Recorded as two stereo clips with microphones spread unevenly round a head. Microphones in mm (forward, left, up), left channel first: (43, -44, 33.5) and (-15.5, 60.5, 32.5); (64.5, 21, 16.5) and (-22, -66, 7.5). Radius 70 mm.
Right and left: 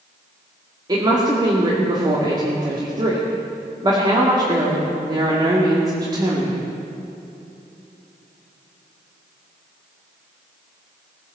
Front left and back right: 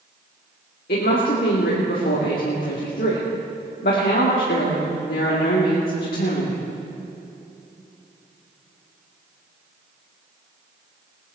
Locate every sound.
0.9 s a woman speaking: 65° left, 2.5 m